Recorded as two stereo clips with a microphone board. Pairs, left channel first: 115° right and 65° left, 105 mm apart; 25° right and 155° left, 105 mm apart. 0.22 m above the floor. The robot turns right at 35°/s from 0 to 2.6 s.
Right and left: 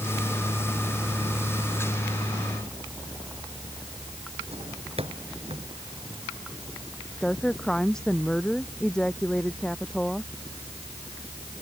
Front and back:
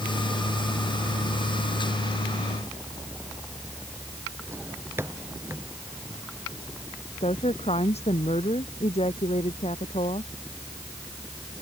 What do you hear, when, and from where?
4.5 s a drawer: 90° left
7.2 s a woman speaking: 30° right